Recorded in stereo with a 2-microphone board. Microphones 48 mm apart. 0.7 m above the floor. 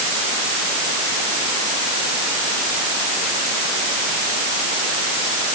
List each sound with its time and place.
Only background noise.